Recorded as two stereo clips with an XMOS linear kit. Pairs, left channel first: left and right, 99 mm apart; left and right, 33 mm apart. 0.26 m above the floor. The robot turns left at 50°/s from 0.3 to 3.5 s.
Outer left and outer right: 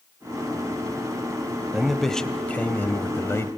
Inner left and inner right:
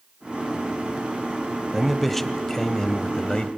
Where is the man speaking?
5° right (ahead or behind), 1.0 m; by 3.5 s 25° left (ahead or behind), 1.0 m.